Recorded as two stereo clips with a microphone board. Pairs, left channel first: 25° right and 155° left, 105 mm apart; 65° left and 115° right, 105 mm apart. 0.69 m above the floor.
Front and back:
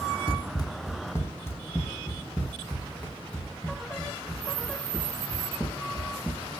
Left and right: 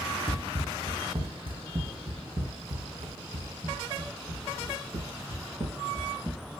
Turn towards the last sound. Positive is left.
turn(degrees=-105)